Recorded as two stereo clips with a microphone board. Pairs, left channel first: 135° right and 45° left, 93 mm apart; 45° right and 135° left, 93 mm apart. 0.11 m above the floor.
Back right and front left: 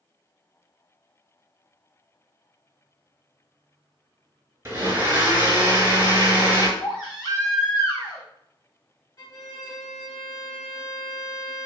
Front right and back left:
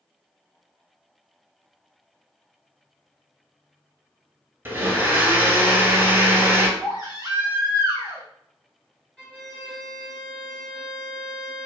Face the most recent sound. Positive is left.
turn(degrees=-125)